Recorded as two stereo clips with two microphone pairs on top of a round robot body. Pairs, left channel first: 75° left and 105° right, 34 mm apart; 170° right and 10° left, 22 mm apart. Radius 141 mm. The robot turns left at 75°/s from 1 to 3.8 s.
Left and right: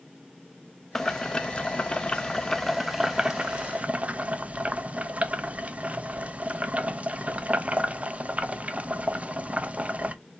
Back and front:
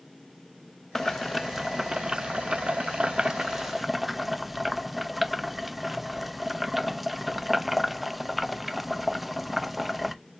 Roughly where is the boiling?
Behind left.